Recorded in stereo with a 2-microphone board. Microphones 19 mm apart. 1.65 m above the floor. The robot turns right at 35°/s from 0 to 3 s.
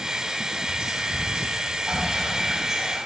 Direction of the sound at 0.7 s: 80° right.